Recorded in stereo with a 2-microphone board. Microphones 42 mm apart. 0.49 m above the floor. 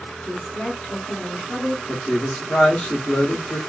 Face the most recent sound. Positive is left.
turn(degrees=25)  # may be behind; listen again after turning